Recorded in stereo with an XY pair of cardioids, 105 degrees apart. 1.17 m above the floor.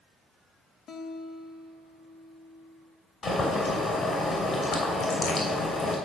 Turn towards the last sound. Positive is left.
turn(degrees=50)